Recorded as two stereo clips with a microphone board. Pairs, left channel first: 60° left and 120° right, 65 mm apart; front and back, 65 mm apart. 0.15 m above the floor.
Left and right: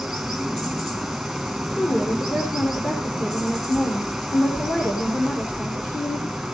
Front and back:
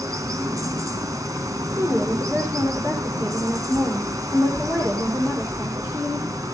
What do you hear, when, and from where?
0.0 s running water: 150° left, 2.5 m
1.8 s a woman speaking: 115° left, 6 m